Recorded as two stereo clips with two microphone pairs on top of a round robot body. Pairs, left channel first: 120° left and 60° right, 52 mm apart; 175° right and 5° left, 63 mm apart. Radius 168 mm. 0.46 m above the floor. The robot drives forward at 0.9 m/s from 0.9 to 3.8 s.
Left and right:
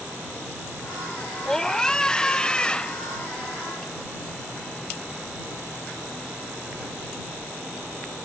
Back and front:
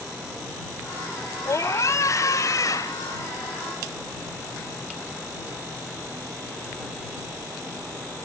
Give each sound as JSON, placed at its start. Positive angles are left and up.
{"t": 1.4, "sound": "a scream", "azimuth_deg": -160}